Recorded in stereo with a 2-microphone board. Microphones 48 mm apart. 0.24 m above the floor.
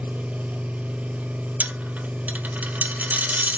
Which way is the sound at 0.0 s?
35° right (ahead or behind).